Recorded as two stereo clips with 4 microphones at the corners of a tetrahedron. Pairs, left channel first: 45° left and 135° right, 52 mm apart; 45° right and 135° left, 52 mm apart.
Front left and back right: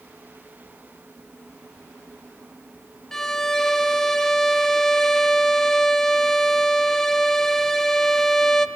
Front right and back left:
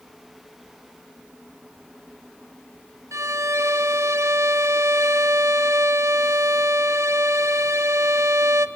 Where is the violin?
125° left, 0.5 m.